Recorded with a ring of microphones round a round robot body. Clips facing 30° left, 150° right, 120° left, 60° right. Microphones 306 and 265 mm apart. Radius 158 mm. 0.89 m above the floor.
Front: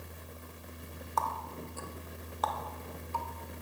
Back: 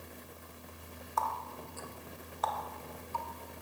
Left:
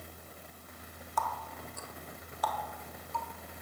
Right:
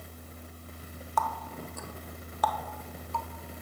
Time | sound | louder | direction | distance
1.2 | a running tap | front 1 dB, right 4 dB | 25° right | 0.5 m